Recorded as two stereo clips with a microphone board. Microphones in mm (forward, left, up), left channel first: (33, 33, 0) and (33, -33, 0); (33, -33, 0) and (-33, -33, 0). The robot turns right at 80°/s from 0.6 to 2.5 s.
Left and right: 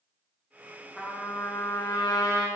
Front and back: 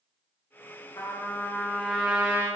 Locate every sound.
1.0 s a trumpet: 10° left, 1.0 m; by 2.5 s 130° left, 1.0 m